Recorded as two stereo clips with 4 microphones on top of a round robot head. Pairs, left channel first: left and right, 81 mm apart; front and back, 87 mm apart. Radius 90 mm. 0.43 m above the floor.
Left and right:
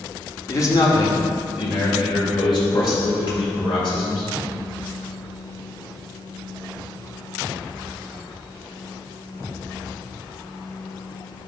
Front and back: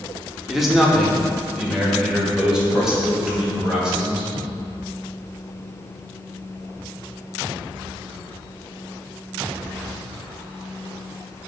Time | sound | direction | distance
0.5 | a man speaking | 95° left | 1.1 m